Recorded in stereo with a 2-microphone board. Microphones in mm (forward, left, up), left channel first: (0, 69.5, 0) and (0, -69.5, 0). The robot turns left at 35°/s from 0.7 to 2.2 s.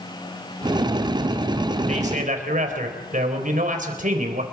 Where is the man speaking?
50° right (ahead or behind), 4 m; by 4.5 s 60° right (ahead or behind), 4 m.